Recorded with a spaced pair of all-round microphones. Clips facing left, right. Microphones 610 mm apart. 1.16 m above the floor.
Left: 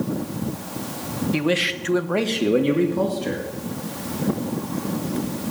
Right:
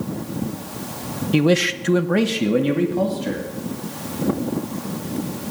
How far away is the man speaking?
About 0.9 m.